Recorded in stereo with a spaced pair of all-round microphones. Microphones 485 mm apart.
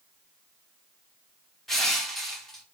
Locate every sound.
1.7 s crushing: centre (ahead or behind), 0.8 m